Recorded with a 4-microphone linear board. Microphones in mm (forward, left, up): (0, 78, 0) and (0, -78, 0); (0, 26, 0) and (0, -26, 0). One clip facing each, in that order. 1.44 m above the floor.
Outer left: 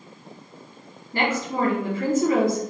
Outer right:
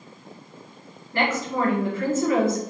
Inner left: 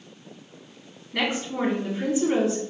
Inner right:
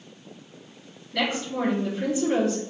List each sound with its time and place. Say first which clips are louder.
1.1 s a woman speaking: even, even; 15° left (ahead or behind), 1.4 m